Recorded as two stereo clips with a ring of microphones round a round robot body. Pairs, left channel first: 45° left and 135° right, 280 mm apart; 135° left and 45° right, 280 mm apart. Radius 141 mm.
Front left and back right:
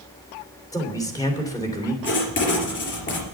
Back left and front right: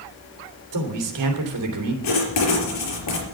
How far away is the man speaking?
About 3 m.